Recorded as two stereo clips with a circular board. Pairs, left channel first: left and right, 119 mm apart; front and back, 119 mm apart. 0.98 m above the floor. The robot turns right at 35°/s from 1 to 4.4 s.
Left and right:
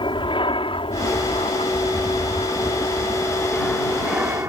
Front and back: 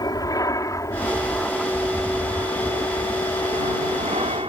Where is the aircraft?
50° left; by 4.5 s 155° right.